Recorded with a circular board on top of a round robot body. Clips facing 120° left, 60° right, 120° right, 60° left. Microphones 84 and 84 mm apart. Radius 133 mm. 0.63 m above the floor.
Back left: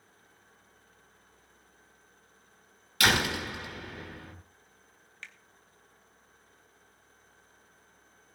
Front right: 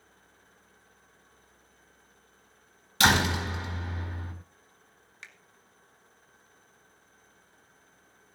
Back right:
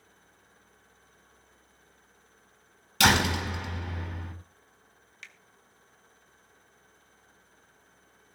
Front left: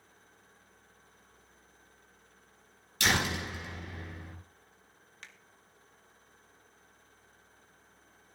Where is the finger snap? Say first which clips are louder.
Back left 1 dB, back right 2 dB; 10° left, 2 m.